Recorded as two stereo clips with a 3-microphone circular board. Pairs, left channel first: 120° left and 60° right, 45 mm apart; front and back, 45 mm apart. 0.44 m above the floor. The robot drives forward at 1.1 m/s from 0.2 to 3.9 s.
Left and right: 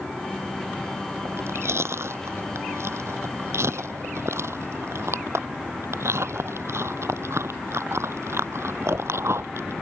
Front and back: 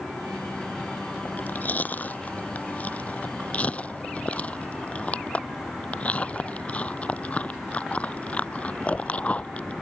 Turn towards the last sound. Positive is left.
turn(degrees=-60)